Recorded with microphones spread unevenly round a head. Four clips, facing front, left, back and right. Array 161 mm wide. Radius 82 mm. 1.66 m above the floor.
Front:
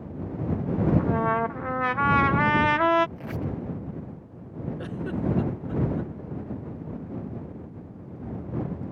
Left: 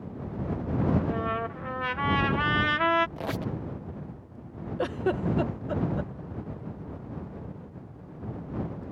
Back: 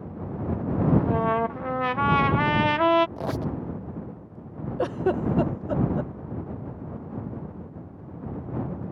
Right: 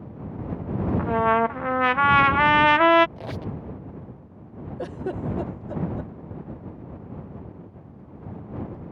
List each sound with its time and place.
1.0 s a trumpet: 80° right
3.2 s a squeak: 175° left
4.8 s a giggle: 165° left